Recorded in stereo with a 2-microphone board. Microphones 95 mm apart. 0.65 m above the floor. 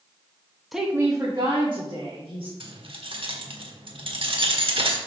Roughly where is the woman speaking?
Centre.